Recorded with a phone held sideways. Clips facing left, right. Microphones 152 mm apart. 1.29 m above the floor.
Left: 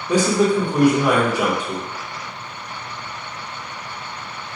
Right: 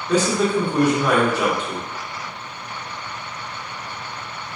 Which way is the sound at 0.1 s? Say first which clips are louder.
Left 2 dB; 10° left (ahead or behind).